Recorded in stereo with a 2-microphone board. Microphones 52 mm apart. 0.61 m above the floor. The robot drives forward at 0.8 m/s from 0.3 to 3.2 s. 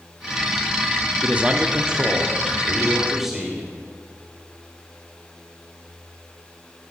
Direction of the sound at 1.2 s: 25° right (ahead or behind).